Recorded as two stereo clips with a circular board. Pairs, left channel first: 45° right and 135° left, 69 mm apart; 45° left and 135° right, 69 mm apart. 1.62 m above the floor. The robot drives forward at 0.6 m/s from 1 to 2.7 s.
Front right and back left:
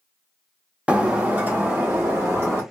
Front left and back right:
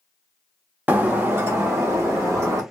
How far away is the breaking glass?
About 0.9 m.